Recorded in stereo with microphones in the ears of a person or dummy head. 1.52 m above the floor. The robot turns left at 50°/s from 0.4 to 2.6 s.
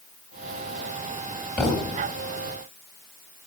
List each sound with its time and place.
1.6 s a thud: 5° left (ahead or behind), 2.5 m; by 2.0 s 25° left (ahead or behind), 2.5 m